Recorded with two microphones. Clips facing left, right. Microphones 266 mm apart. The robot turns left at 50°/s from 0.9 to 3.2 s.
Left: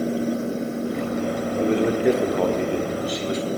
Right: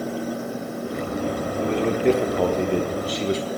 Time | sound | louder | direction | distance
1.6 | a man speaking | left 2 dB | 30° left | 1.0 m